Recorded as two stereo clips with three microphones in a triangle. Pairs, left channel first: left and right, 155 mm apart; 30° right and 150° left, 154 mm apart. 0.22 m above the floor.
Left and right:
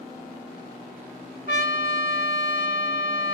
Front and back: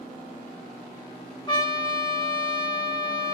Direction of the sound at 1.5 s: 90° right.